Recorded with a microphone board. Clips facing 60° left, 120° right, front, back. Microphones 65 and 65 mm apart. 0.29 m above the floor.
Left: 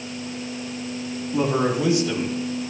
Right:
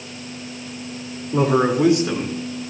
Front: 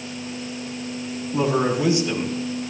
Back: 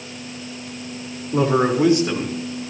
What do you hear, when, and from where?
1.3 s a man speaking: 145° right, 5.5 m